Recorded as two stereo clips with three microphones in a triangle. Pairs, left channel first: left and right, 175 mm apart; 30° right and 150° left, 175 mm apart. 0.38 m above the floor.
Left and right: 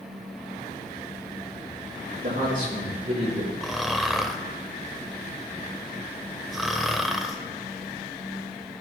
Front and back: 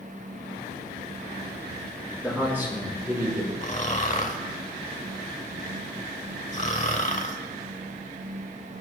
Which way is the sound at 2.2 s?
125° right.